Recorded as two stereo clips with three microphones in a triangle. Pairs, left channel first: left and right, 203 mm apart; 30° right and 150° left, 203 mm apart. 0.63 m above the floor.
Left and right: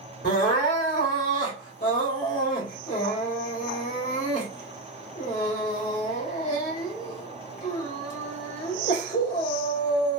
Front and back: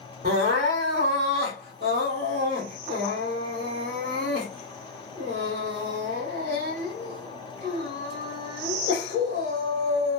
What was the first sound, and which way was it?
Crying, 95° left.